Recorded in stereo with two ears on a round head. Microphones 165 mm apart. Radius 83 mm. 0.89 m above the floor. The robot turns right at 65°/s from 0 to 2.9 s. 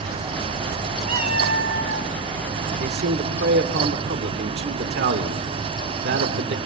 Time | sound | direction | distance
1.1 | a cat meowing | 140° right | 1.5 m
2.8 | a man speaking | 55° right (ahead or behind) | 2 m